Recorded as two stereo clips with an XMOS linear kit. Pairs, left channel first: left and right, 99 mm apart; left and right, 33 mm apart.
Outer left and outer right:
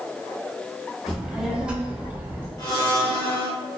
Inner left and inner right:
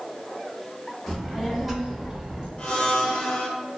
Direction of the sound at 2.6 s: 35° left (ahead or behind).